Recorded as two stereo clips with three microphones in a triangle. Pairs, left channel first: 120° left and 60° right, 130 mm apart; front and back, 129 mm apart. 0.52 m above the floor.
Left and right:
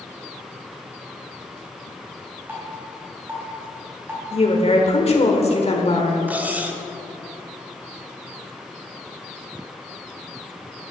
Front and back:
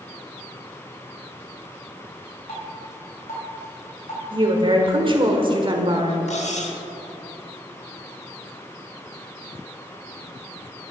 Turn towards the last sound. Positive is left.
turn(degrees=15)